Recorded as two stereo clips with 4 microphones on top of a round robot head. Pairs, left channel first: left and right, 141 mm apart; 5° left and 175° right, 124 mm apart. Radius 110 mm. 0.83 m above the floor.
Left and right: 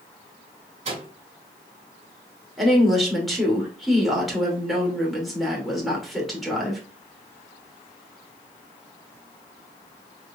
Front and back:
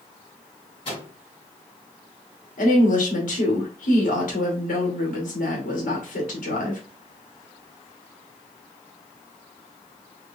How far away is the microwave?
About 2.5 m.